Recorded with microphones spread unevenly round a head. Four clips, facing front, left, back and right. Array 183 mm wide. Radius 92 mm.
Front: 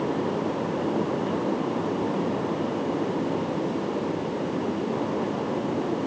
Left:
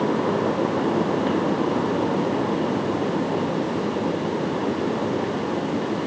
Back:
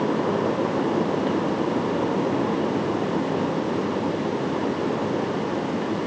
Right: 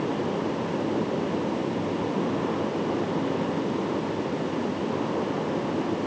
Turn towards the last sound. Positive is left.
No sound to turn to.